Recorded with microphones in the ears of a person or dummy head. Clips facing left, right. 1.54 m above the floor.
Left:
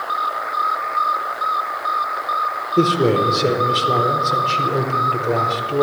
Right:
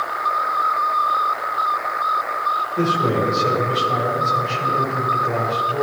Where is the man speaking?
45° left (ahead or behind), 1.2 m.